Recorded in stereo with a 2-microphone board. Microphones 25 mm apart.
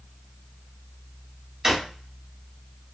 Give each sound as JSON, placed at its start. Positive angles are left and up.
{"t": 1.6, "sound": "a drawer", "side_deg": -20, "distance_m": 1.7}